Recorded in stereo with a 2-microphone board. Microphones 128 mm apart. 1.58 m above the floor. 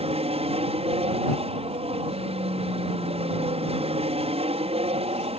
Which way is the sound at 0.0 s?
50° right (ahead or behind).